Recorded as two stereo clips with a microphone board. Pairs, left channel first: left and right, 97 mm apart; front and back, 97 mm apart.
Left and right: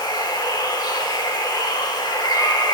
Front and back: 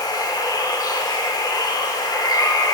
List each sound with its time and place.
0.0 s running water: 45° left, 0.8 m